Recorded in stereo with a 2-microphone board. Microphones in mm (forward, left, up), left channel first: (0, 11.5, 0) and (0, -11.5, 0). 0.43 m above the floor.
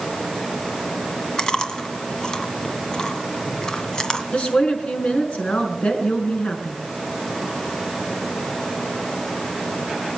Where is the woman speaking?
75° left (ahead or behind), 5 m.